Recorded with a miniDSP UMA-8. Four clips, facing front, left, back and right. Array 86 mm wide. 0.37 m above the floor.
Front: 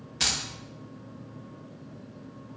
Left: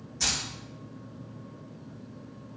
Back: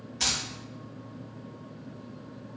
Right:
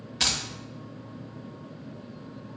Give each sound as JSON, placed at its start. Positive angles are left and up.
{"t": 0.2, "sound": "keys jangling", "azimuth_deg": -65, "distance_m": 0.7}